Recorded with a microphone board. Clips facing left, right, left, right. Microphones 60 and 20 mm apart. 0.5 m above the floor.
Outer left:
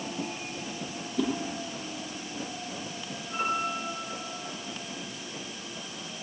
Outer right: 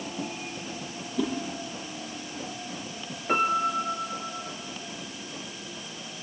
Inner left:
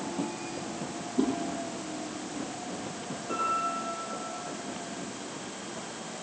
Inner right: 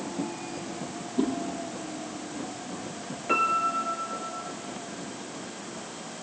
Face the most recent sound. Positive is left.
turn(degrees=-85)